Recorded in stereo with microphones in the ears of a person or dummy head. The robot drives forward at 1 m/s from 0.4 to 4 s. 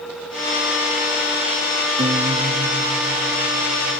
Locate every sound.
2.0 s a guitar: 30° right (ahead or behind); by 4.0 s 20° right (ahead or behind)